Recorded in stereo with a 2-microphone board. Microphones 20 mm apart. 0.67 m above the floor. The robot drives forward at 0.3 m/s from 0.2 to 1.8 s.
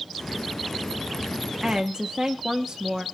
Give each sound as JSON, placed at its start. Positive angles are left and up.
{"t": 1.6, "sound": "a woman speaking", "side_deg": -25, "distance_m": 1.0}